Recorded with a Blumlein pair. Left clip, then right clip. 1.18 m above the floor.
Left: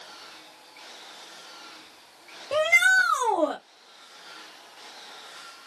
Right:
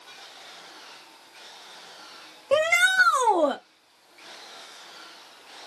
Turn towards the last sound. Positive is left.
turn(degrees=-20)